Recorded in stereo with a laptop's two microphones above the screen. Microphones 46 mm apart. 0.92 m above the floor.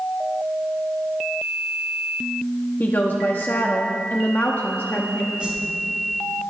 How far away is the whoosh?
About 4.5 m.